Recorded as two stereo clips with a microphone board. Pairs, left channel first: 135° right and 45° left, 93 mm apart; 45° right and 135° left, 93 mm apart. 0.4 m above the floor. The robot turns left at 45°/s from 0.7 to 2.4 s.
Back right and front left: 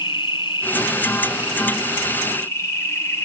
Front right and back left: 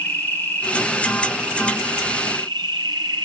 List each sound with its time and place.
0.0 s an insect: 115° right, 2.5 m; by 3.2 s 170° left, 2.5 m